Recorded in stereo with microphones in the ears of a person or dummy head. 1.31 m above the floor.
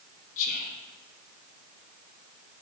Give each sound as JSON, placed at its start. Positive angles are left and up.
{"t": 0.4, "sound": "whispering", "side_deg": 50, "distance_m": 1.3}